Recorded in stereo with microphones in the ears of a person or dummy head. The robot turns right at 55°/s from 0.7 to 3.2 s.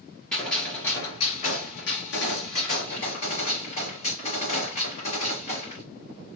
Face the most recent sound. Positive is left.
turn(degrees=140)